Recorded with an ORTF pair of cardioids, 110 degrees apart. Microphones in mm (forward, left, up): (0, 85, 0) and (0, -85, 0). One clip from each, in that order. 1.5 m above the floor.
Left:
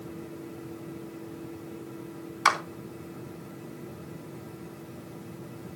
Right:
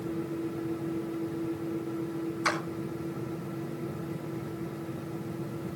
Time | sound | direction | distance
0.0 | a fan | 25° right | 1.2 m
2.5 | a clap | 55° left | 3.5 m